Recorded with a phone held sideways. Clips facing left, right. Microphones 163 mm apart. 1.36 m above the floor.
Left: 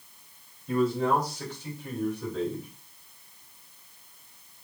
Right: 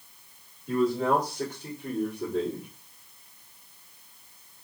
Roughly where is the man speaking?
Right.